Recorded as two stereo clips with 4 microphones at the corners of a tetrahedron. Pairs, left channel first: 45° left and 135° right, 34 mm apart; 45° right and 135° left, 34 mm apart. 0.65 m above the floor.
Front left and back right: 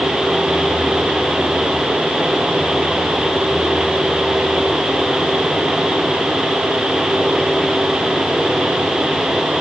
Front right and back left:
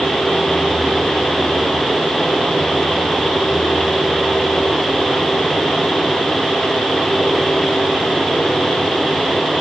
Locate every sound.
Only background noise.